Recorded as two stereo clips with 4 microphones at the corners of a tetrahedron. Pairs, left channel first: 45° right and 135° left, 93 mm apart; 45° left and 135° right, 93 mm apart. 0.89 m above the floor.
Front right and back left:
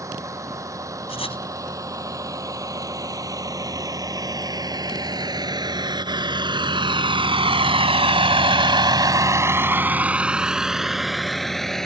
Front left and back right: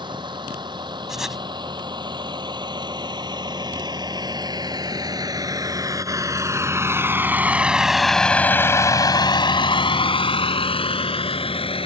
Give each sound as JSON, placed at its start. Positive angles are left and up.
{"t": 0.0, "sound": "a vehicle", "azimuth_deg": -170}
{"t": 1.1, "sound": "writing", "azimuth_deg": -50}